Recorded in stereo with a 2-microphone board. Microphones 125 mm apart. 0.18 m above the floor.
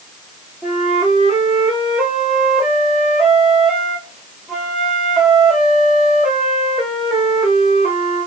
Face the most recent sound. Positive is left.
turn(degrees=0)  # may be behind; listen again after turning